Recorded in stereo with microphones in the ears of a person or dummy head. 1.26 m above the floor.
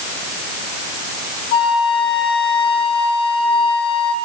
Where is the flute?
70° left (ahead or behind), 1.6 m.